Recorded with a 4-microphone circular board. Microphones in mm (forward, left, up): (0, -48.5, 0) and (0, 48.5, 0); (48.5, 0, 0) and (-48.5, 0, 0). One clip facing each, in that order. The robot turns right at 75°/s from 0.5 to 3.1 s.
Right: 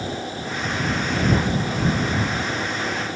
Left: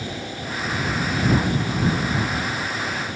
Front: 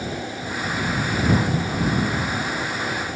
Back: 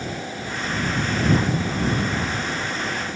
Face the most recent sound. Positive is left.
No sound to turn to.